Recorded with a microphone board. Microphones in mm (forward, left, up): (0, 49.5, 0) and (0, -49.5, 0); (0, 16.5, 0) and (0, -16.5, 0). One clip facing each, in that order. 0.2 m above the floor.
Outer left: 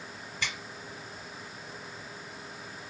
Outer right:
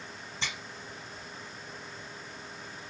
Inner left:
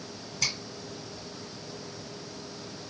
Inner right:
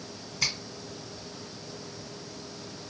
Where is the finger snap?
30° right (ahead or behind), 1.5 m.